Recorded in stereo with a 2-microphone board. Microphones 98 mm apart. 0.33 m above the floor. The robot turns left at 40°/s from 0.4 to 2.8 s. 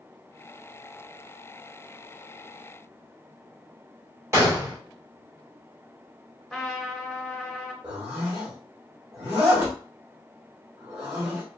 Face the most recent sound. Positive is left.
turn(degrees=-15)  # may be behind; listen again after turning